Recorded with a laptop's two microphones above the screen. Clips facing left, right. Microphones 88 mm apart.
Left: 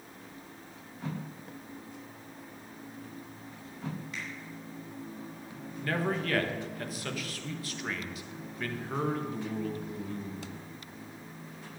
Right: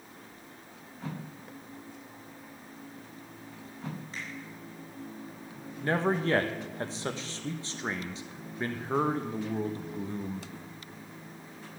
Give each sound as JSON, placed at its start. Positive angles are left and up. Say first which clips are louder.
{"t": 4.1, "sound": "a finger snap", "louder": "even", "side_deg": -30, "distance_m": 4.0}
{"t": 5.8, "sound": "a man speaking", "louder": "right 4 dB", "side_deg": -30, "distance_m": 1.3}